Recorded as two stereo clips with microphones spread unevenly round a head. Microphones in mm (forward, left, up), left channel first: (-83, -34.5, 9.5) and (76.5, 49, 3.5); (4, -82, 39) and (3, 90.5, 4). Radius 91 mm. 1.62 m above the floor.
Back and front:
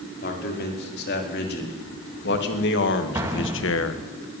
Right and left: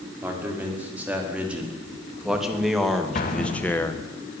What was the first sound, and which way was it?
A man speaking, 170° left.